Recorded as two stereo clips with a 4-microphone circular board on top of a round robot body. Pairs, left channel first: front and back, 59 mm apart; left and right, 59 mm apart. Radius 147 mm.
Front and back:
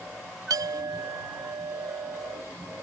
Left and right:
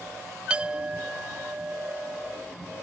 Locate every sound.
0.5 s a clink: 160° right